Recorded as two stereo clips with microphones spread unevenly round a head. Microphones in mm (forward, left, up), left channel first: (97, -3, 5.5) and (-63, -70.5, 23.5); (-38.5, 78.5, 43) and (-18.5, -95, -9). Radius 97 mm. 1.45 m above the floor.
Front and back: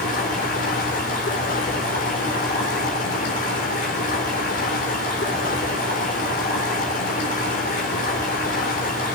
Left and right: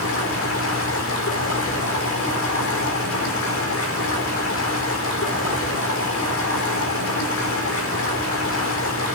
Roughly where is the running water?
Left.